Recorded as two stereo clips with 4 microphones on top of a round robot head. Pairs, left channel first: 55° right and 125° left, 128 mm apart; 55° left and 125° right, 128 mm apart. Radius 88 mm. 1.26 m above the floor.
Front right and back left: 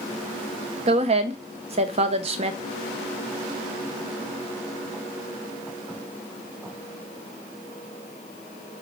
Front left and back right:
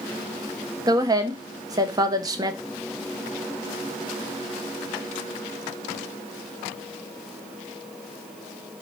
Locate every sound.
0.9 s a woman speaking: 170° left, 0.6 m